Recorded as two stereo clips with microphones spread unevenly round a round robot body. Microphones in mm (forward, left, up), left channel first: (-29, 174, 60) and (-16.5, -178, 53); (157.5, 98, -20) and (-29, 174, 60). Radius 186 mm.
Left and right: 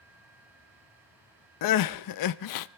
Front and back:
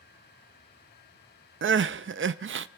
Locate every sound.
1.6 s crying: 110° left, 0.5 m